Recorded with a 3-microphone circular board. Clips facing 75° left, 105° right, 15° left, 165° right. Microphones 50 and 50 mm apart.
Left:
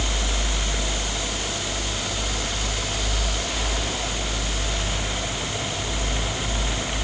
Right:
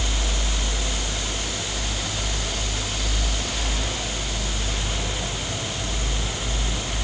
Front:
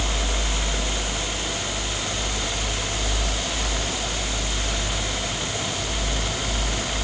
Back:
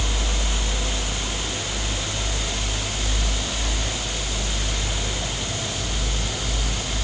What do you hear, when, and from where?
Only background noise.